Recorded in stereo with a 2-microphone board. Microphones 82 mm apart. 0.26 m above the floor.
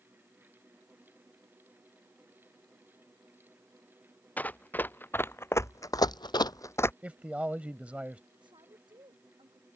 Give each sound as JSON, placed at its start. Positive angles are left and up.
{"t": 4.4, "sound": "running footsteps", "side_deg": 20}
{"t": 7.0, "sound": "a man speaking", "side_deg": -15}
{"t": 8.3, "sound": "a woman speaking", "side_deg": -70}